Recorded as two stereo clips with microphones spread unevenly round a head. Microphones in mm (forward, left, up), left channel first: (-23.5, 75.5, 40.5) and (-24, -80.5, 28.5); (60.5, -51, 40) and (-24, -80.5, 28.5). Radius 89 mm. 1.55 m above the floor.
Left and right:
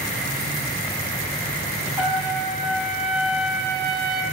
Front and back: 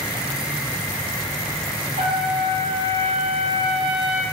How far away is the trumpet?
About 3.5 m.